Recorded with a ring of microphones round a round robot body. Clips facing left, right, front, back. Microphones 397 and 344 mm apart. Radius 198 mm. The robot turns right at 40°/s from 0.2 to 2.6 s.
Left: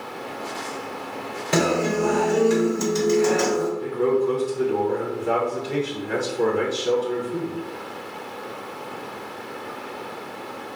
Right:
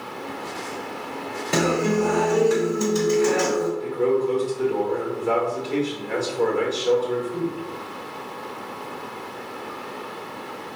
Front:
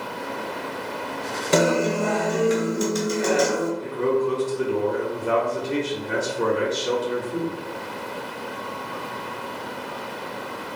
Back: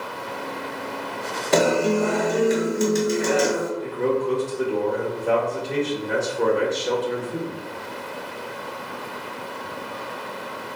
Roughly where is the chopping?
I don't hear chopping.